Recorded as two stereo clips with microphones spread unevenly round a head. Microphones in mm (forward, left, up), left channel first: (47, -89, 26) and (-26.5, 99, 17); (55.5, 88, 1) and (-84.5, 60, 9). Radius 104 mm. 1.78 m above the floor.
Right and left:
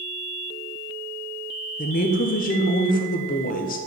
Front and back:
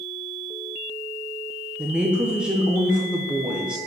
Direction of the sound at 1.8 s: 90° right.